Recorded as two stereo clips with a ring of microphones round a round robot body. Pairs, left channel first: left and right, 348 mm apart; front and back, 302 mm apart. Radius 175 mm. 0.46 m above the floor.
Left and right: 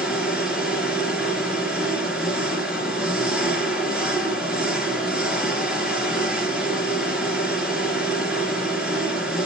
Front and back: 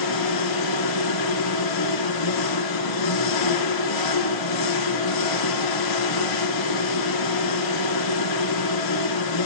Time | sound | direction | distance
0.0 | an engine running | straight ahead | 3.5 m